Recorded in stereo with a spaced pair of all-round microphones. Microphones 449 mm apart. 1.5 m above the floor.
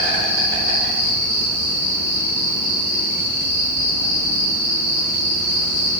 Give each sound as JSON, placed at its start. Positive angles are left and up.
{"t": 0.0, "sound": "an insect", "side_deg": 45, "distance_m": 3.0}